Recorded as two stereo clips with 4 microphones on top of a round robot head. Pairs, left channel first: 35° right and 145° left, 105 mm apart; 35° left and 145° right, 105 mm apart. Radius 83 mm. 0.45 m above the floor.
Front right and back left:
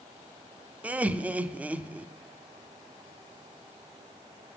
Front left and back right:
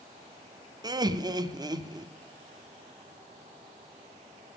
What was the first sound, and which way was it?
Laughter, 145° right.